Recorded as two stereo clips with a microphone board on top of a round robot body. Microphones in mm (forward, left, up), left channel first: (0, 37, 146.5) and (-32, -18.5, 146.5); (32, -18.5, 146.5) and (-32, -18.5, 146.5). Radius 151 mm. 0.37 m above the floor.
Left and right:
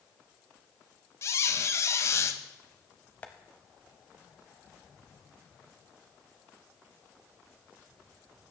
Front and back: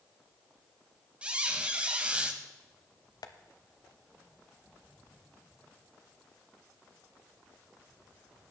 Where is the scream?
No scream in this recording.